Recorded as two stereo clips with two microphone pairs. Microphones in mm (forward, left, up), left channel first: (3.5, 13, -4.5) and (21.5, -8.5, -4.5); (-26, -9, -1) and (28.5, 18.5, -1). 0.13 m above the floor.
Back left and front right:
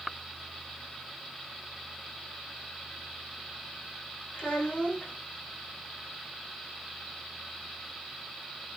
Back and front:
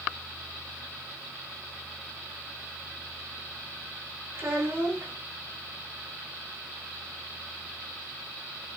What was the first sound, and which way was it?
A child speaking, 80° left.